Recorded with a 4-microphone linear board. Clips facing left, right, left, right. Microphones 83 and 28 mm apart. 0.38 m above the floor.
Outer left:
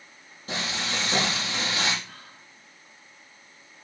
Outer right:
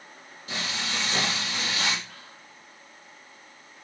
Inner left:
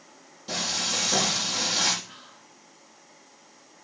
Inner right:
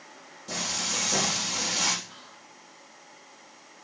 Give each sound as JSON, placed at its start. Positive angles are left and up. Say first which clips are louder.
{"t": 0.5, "sound": "frying", "louder": "outer left 2 dB, inner left 3 dB", "side_deg": 35, "distance_m": 6.0}
{"t": 2.0, "sound": "whispering", "louder": "even, even", "side_deg": 45, "distance_m": 4.5}